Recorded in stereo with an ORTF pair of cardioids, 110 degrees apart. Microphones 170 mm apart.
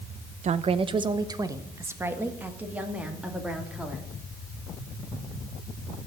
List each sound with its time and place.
0.4 s a woman speaking: 45° right, 0.9 m; by 4.1 s 5° right, 3 m